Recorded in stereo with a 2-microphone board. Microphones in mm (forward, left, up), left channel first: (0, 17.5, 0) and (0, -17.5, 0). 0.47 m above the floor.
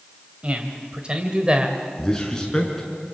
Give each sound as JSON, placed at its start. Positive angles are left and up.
{"t": 0.4, "sound": "a man speaking", "side_deg": -35, "distance_m": 3.0}
{"t": 2.0, "sound": "a man speaking", "side_deg": 15, "distance_m": 5.5}